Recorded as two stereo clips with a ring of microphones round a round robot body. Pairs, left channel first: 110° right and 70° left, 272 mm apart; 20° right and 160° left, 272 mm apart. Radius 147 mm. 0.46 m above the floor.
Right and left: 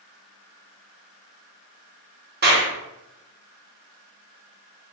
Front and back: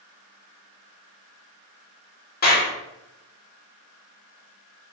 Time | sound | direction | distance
2.4 | a clap | 25° left | 1.3 m